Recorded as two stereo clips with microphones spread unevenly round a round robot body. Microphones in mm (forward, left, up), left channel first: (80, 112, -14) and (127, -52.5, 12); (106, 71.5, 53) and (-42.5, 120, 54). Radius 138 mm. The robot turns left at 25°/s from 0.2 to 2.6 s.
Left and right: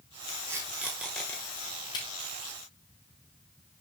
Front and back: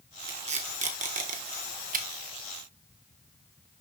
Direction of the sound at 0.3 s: 150° right.